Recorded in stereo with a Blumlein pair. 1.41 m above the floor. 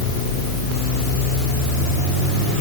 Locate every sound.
Only background noise.